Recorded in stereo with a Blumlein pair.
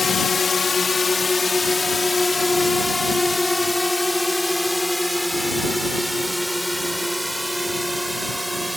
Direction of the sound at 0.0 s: 15° left.